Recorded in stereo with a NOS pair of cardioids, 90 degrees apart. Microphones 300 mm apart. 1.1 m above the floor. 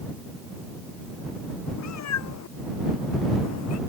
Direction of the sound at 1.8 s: 65° left.